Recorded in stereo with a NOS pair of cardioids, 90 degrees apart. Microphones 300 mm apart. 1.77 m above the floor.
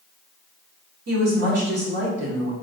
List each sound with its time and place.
1.1 s a woman speaking: 55° right, 1.9 m